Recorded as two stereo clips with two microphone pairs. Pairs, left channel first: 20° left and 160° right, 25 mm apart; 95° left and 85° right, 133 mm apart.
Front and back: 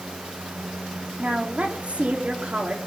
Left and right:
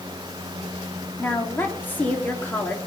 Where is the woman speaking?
170° left, 3 m.